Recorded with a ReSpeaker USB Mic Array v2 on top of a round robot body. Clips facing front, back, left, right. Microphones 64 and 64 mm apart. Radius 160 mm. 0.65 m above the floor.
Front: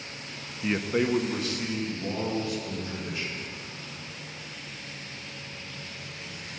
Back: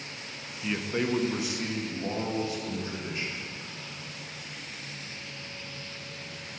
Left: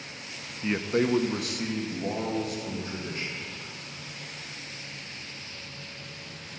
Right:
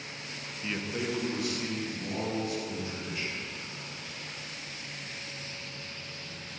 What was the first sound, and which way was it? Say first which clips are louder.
A man speaking: front 4 dB, left 8 dB; 40° left.